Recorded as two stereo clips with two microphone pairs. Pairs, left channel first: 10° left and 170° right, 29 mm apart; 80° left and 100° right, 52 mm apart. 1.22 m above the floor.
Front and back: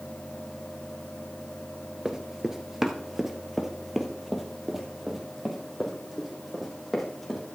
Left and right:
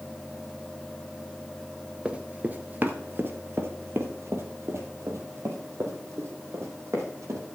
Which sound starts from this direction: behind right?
Running footsteps, at 2.0 s.